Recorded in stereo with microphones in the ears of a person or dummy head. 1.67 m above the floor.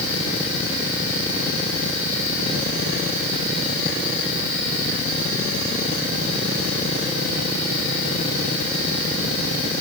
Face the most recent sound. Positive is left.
No sound to turn to.